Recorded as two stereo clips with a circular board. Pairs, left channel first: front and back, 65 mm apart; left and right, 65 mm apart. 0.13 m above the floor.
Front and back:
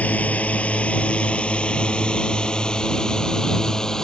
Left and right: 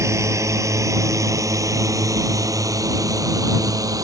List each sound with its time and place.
0.0 s a drone: 65° right; by 4.0 s 80° right